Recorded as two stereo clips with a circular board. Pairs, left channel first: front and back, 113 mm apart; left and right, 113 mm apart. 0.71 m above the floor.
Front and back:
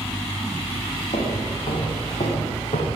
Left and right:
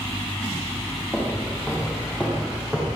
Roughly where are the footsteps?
Ahead.